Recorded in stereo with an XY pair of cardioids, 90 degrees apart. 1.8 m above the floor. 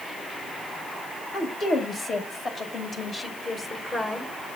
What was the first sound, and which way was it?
A woman speaking, 70° left.